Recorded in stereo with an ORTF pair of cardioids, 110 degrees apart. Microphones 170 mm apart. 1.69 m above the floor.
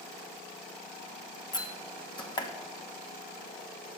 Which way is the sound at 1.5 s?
25° left.